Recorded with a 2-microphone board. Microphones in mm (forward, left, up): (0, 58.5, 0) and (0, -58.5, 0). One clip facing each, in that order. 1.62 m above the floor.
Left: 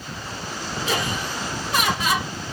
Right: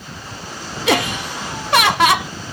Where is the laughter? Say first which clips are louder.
Right 8 dB; 75° right (ahead or behind), 0.6 m.